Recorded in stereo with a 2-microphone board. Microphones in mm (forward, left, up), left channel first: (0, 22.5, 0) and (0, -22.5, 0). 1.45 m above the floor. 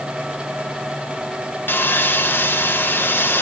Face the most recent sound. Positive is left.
turn(degrees=50)  # may be behind; listen again after turning